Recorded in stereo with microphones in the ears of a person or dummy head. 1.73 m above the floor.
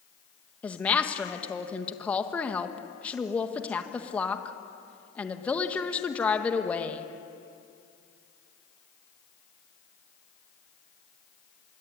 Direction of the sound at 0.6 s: 5° left (ahead or behind).